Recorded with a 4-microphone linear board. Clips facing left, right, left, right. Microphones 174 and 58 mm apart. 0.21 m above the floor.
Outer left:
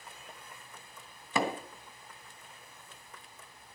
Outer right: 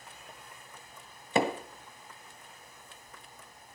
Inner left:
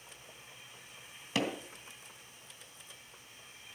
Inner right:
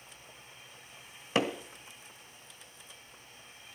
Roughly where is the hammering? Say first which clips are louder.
Outer right 4 dB, inner right 4 dB; right.